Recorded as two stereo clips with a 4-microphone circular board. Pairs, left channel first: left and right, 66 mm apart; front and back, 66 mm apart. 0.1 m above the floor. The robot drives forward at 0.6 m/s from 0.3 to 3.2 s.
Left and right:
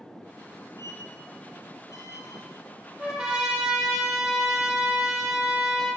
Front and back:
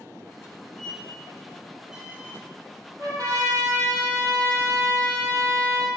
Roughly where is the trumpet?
Behind.